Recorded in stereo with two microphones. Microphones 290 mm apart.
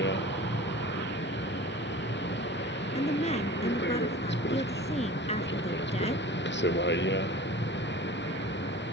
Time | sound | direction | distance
0.0 | a vehicle | 40° left (ahead or behind) | ?
3.0 | a woman speaking | 25° left (ahead or behind) | ?